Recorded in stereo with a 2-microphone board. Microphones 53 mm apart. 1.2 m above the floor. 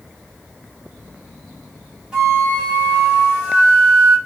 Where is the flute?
15° right (ahead or behind), 1.7 m.